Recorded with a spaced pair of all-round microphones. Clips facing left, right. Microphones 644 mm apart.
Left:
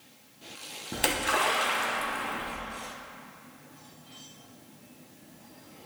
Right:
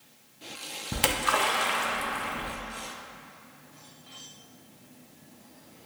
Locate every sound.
0.9 s a splash: 35° right (ahead or behind), 0.5 m